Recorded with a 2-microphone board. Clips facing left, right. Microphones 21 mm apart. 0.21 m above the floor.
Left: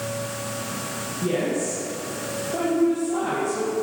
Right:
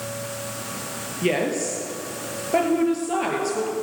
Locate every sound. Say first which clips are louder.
1.2 s a woman speaking: right 2 dB; 70° right (ahead or behind), 4.5 m